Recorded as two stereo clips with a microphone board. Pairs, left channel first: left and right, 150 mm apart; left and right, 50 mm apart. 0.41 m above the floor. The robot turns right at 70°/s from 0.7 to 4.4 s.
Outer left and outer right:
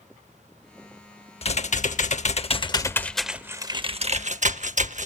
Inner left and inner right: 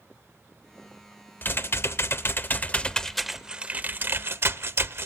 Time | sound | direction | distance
1.4 | typing on a keyboard | 55° left | 0.6 m